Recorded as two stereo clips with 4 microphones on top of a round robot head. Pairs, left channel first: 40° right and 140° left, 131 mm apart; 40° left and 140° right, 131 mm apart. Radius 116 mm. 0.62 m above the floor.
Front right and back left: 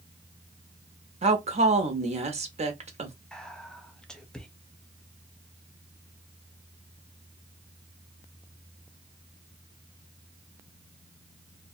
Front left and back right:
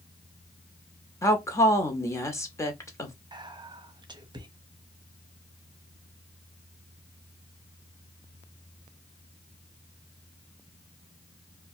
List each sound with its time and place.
1.2 s a woman speaking: 110° left, 1.0 m
3.3 s whispering: 125° right, 0.9 m